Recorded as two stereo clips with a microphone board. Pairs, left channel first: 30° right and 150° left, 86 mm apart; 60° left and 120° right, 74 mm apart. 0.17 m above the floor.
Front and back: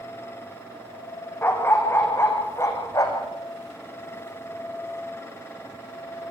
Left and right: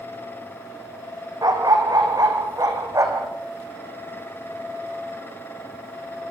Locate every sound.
1.4 s a dog barking: 95° right, 4 m; by 3.3 s 75° right, 4 m